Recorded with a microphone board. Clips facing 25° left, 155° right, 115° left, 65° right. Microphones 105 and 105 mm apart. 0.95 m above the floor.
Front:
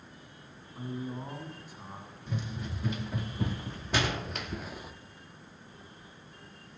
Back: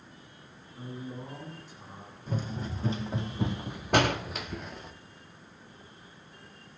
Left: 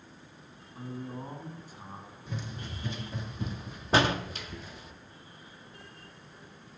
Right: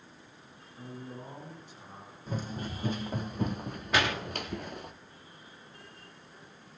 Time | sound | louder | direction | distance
0.8 | a man speaking | front 3 dB, left 4 dB | 65° left | 8.5 m
2.3 | running footsteps | back 3 dB, right 5 dB | 110° right | 2.0 m
3.9 | a door slam | back 6 dB, left 4 dB | 170° left | 1.6 m